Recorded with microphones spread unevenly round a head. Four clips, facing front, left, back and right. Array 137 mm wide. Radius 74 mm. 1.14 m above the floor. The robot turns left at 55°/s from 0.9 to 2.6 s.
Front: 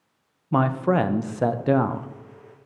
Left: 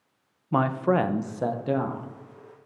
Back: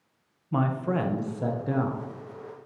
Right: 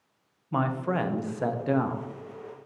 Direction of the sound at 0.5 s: 55° left.